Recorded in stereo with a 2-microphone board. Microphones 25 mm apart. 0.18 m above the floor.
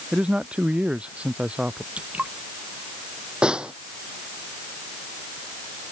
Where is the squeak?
No squeak in this recording.